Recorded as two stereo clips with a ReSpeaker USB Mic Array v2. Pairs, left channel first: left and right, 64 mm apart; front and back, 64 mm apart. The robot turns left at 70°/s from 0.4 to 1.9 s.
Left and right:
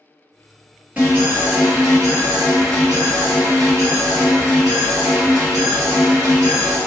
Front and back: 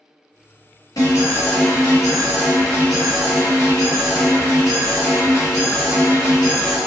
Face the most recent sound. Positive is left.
turn(degrees=-90)